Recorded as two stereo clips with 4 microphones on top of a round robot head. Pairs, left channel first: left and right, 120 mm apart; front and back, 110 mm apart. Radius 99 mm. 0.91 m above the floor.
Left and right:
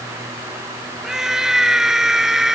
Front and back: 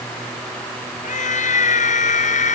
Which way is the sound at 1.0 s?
5° right.